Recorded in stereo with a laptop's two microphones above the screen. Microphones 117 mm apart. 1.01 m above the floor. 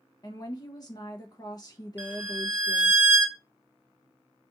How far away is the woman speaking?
About 0.6 m.